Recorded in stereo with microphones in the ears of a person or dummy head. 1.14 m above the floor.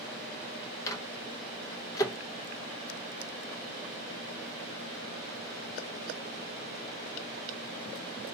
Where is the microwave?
15° left (ahead or behind), 0.8 m.